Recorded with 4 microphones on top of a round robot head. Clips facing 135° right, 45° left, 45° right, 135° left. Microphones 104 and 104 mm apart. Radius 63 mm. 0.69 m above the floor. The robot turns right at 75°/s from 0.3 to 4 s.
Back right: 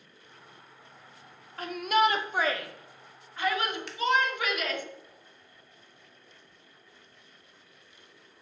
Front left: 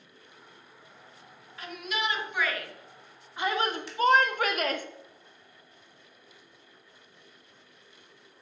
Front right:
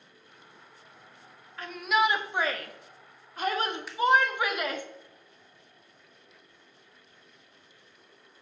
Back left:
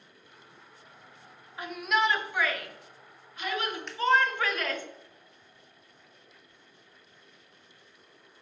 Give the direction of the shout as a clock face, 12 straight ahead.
5 o'clock.